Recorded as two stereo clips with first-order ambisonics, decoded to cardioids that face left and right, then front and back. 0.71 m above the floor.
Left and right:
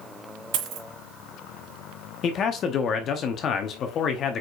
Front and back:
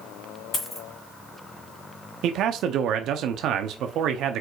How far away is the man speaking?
About 0.8 m.